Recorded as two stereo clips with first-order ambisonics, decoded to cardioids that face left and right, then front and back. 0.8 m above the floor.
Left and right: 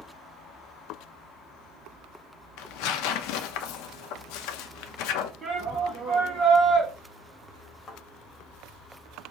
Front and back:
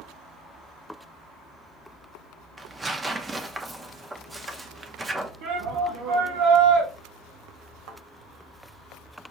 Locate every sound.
2.6 s tearing paper: 100° left, 0.7 m
5.4 s a shout: 165° right, 2 m
7.9 s a thud: 160° left, 1.3 m